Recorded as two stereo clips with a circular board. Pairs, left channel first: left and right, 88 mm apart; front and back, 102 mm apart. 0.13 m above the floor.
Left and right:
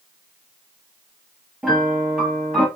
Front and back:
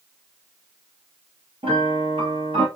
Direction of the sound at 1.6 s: 175° right.